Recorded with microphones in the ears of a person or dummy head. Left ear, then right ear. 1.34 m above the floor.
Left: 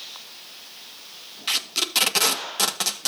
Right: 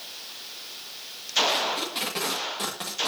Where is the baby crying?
I don't hear a baby crying.